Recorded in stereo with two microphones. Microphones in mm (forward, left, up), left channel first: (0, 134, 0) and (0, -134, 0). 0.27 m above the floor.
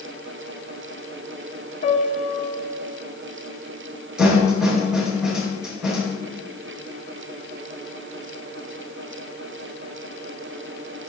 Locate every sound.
1.8 s a piano: 50° left (ahead or behind), 1.9 m
4.2 s a snare drum: centre (ahead or behind), 5 m